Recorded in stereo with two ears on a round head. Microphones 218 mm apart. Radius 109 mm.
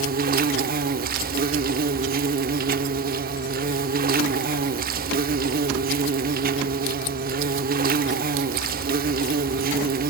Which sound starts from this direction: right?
An insect, at 0.0 s.